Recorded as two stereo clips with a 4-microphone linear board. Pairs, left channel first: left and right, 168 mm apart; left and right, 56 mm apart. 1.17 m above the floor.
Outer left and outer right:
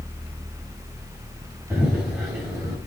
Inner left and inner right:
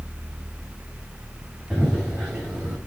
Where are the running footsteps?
15° right (ahead or behind), 6.5 m.